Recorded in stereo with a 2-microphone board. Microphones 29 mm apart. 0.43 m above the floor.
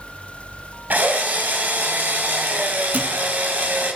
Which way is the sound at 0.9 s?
80° right.